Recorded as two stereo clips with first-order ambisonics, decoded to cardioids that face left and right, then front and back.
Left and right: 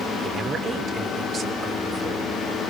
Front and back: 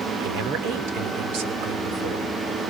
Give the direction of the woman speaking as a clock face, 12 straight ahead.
5 o'clock.